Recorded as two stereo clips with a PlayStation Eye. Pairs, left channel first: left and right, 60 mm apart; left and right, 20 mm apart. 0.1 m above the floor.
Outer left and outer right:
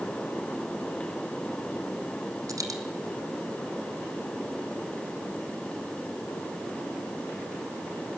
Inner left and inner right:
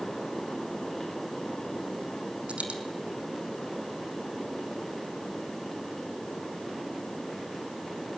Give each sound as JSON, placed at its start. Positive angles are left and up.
{"t": 2.5, "sound": "a dropped coin", "side_deg": -75, "distance_m": 2.0}